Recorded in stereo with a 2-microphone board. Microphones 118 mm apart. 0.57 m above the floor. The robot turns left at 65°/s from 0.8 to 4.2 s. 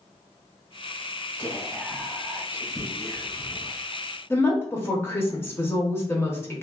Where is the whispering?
15° left (ahead or behind), 1.4 m; by 3.7 s 25° right (ahead or behind), 1.4 m.